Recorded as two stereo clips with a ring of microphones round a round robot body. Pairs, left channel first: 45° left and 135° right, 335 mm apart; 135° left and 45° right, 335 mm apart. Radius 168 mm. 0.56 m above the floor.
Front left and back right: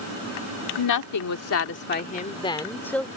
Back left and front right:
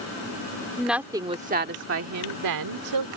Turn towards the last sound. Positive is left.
turn(degrees=-40)